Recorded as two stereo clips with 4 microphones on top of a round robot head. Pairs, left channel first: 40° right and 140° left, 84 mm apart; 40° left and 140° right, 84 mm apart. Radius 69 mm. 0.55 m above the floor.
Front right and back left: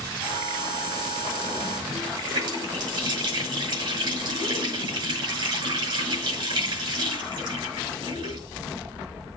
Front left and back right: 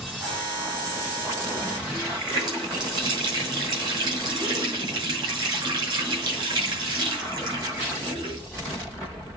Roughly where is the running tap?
Behind.